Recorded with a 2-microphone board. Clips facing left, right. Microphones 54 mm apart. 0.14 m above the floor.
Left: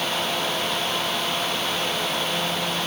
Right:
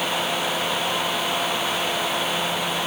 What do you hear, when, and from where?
Only background noise.